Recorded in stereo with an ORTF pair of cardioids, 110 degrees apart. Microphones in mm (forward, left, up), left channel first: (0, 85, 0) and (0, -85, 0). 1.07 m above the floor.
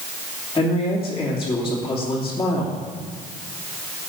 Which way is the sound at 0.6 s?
20° left.